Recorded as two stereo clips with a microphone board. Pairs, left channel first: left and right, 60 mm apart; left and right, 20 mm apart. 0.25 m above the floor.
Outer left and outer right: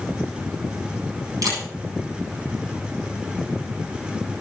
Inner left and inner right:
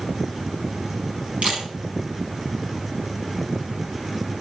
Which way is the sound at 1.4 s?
80° right.